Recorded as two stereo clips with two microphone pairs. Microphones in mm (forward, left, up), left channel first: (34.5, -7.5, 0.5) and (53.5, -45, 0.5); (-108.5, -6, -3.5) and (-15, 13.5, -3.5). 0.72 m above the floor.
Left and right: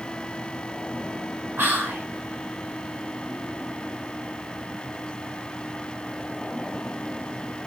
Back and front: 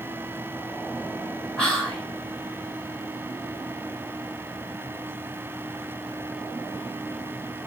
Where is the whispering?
55° right, 0.8 m.